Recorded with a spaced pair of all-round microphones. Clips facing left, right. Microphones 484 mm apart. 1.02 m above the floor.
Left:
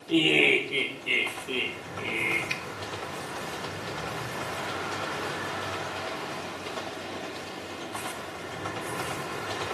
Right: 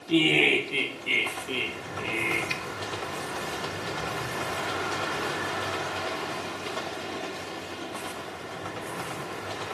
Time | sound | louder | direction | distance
0.1 | laughter | even | 25° right (ahead or behind) | 0.8 m
2.5 | a finger snap | right 2 dB | 70° right (ahead or behind) | 0.6 m